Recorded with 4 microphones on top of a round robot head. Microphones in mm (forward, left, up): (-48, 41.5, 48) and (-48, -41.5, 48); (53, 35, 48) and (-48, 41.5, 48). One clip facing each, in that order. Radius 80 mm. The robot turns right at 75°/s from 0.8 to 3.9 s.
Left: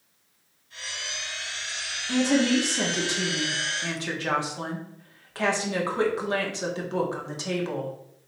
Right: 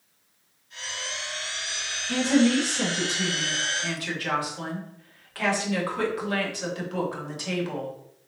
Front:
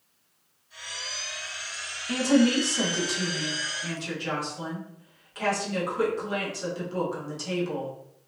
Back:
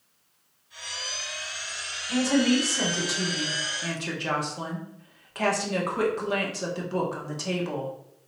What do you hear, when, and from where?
2.1 s a woman speaking: 15° left, 1.5 m; by 7.9 s 150° left, 1.5 m